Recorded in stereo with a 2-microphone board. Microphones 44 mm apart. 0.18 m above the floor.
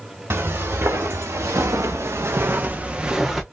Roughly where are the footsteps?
Right.